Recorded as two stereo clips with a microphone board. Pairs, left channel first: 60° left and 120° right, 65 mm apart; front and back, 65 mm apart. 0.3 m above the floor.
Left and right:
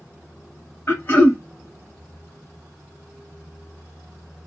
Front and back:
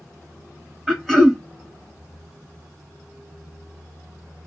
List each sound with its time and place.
0.9 s throat clearing: 85° left, 0.9 m